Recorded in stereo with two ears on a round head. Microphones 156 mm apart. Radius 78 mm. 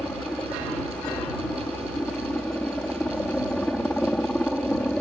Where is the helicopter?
5° left (ahead or behind).